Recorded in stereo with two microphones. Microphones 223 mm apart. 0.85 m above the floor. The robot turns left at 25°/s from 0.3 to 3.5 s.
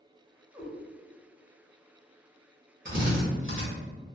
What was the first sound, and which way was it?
A cat meowing, 15° right (ahead or behind).